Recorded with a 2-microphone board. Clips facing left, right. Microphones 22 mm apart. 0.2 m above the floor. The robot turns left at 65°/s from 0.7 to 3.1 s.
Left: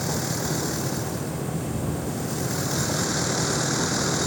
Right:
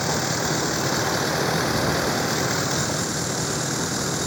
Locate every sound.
0.0 s a vehicle: 30° right; by 4.3 s 175° left